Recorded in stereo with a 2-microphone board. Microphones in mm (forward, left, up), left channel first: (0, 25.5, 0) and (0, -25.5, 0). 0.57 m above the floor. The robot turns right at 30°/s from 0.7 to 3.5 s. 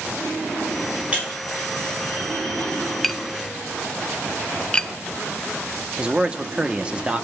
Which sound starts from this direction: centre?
Tapping, at 3.0 s.